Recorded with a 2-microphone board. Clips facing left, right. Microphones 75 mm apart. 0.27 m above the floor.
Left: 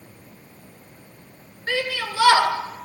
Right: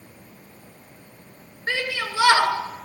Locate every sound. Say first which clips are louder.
1.7 s a shout: left 1 dB; 25° right (ahead or behind), 3 m